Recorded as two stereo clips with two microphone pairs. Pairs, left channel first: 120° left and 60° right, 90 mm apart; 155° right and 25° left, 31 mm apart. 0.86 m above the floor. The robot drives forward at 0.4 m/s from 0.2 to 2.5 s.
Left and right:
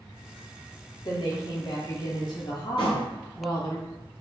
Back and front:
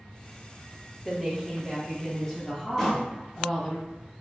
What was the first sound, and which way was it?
A woman speaking, 110° left.